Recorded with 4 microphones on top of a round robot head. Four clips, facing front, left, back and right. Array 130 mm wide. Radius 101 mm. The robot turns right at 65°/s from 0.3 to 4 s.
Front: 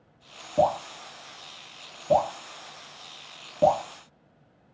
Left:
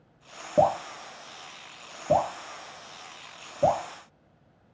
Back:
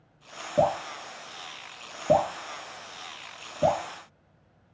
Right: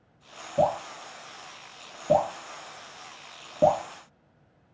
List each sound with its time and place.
0.6 s dripping: 100° left, 1.3 m; by 3.8 s 50° right, 1.3 m